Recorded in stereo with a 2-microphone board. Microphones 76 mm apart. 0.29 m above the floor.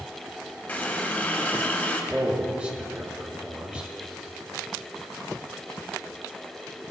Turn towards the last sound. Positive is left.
turn(degrees=-20)  # may be behind; listen again after turning